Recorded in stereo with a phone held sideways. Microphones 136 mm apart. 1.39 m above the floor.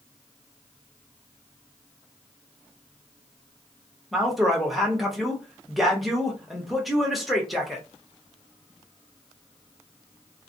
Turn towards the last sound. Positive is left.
turn(degrees=0)  # may be behind; listen again after turning